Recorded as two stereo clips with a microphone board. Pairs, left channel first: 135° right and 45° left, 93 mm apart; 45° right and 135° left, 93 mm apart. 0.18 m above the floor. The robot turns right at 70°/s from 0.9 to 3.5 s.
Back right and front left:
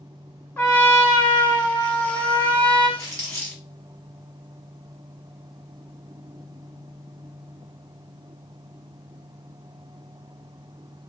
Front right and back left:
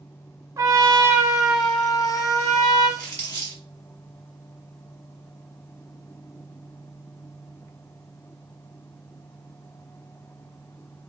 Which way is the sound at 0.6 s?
165° left.